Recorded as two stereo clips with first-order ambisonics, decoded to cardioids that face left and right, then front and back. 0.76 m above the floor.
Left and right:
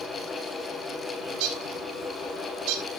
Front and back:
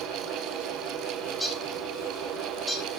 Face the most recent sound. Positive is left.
turn(degrees=-90)